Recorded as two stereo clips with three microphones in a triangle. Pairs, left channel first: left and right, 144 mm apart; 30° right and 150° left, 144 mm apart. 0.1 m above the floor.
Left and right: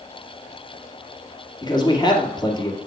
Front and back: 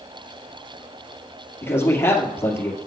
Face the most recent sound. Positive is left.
turn(degrees=40)